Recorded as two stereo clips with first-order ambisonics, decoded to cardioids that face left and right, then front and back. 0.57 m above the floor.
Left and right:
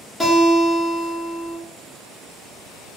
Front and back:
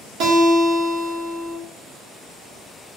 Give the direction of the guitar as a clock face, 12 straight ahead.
6 o'clock.